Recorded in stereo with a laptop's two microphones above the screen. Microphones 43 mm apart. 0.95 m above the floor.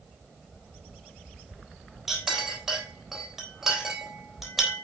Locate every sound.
2.1 s a clink: 10° right (ahead or behind), 4 m